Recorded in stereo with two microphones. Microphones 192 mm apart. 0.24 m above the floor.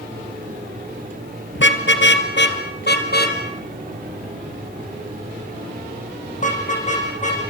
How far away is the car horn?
About 2.5 m.